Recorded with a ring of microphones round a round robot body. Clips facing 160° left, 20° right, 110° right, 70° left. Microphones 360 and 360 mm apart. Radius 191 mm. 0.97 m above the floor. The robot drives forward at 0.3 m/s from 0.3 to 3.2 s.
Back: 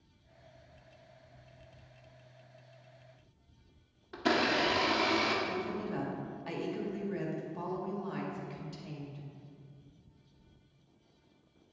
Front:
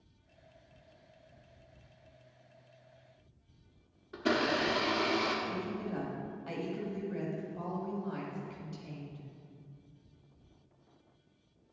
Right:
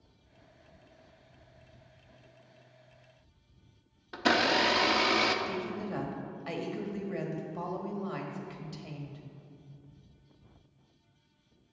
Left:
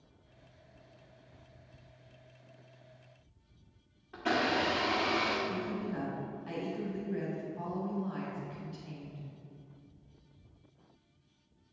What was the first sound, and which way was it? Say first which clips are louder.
A blender: even, right 3 dB; 125° right.